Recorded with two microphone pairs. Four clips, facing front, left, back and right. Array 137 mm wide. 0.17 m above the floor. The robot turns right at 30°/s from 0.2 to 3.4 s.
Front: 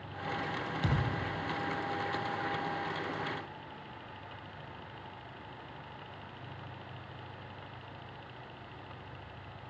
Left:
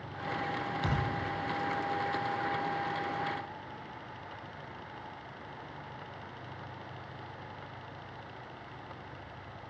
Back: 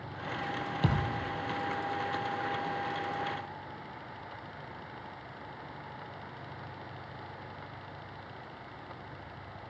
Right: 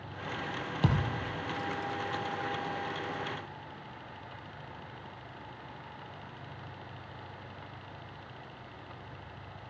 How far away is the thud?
About 3 m.